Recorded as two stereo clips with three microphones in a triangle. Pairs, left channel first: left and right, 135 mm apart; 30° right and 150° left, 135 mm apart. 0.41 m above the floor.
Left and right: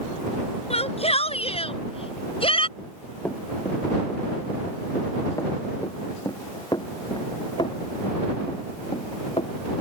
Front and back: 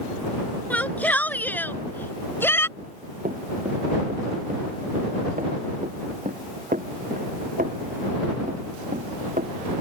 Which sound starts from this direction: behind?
Running footsteps, at 2.8 s.